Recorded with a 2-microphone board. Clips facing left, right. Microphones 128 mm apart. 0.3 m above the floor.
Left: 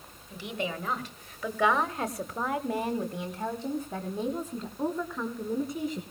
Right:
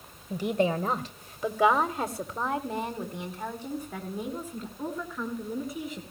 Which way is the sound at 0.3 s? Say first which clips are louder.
Right 8 dB; 45° right (ahead or behind).